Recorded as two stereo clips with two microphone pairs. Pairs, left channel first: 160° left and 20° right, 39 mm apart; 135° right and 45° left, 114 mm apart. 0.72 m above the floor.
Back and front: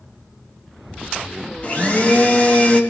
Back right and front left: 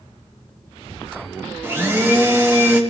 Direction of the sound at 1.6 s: 110° left.